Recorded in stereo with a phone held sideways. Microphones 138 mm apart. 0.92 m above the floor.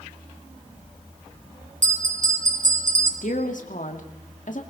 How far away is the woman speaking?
About 2 m.